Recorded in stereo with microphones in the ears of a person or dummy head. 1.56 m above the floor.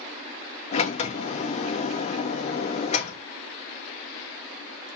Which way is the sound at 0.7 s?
40° left (ahead or behind).